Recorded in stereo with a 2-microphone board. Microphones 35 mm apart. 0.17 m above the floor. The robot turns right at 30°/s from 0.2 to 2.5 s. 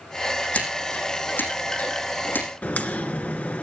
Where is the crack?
50° left (ahead or behind), 2.5 m.